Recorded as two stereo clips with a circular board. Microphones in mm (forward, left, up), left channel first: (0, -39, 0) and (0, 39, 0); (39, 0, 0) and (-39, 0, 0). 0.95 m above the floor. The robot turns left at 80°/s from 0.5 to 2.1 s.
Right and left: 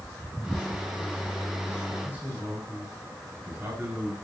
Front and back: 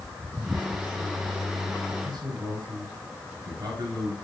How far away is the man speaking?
About 5 m.